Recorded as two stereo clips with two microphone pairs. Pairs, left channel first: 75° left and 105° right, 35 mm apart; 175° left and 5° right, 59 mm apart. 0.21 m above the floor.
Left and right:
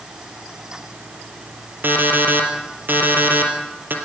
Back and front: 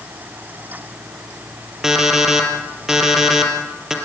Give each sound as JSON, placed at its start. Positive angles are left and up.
{"t": 1.8, "sound": "an alarm clock", "azimuth_deg": -90, "distance_m": 2.5}